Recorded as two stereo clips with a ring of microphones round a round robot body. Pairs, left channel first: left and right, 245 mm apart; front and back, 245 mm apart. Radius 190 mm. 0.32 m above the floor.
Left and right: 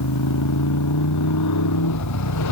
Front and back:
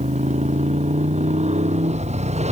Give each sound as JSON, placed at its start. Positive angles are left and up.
{"t": 0.0, "sound": "a motorcycle", "azimuth_deg": 115}